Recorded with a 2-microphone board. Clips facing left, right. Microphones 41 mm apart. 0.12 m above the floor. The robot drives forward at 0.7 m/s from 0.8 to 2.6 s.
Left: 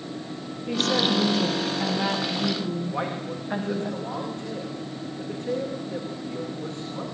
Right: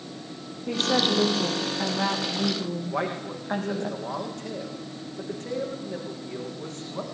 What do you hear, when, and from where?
0.7 s a woman speaking: 40° right (ahead or behind), 6 m; by 3.9 s 50° right (ahead or behind), 5 m
2.9 s a man speaking: 70° right (ahead or behind), 9 m